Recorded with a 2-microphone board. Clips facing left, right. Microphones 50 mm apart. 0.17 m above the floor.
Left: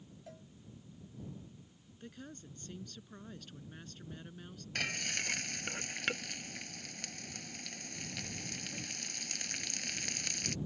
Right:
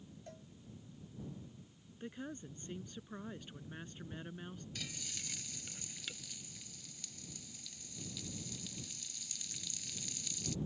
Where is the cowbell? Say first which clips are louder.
Left 2 dB; centre (ahead or behind).